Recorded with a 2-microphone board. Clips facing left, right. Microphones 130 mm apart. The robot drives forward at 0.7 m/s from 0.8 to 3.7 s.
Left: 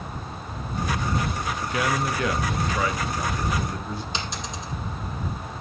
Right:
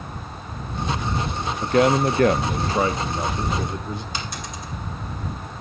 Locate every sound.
1.6 s a man speaking: 45° right (ahead or behind), 0.7 m; by 4.0 s 20° right (ahead or behind), 1.3 m
4.1 s a dropped coin: 20° left (ahead or behind), 5 m